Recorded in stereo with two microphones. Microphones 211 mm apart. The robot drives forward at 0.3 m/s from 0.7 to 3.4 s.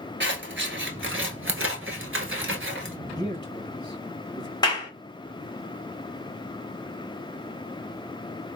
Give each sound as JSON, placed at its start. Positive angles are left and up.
{"t": 0.2, "sound": "scissors", "side_deg": -65, "distance_m": 1.0}
{"t": 3.2, "sound": "a man speaking", "side_deg": 20, "distance_m": 1.2}
{"t": 4.6, "sound": "a clap", "side_deg": 20, "distance_m": 1.3}